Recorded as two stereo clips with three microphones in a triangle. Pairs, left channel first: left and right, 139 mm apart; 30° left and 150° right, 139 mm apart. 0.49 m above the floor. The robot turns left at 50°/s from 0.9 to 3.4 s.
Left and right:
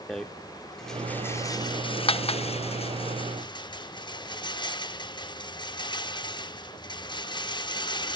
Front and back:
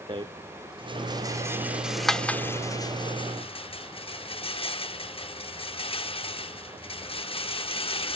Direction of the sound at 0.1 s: 175° left.